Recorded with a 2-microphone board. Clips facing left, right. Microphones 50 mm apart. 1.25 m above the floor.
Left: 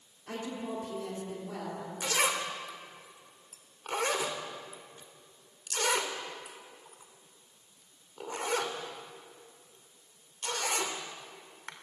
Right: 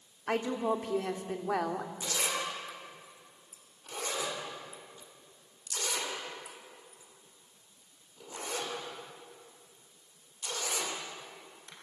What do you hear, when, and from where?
0.3 s a woman speaking: 70° right (ahead or behind), 3 m
2.0 s a zipper: 60° left (ahead or behind), 3 m